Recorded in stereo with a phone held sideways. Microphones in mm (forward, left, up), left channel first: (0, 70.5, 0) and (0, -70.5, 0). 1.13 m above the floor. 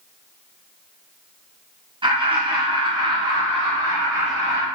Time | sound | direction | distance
2.0 | laughter | 35° right (ahead or behind) | 0.8 m